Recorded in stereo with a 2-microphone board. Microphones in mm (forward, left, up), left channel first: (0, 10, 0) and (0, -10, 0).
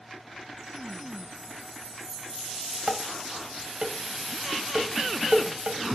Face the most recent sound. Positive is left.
turn(degrees=-65)  # may be behind; listen again after turning